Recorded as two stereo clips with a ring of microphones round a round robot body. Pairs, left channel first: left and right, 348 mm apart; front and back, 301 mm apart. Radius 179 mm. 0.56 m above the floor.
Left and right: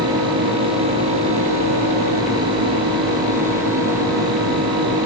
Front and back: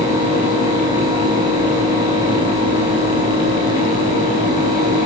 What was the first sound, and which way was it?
Only background noise.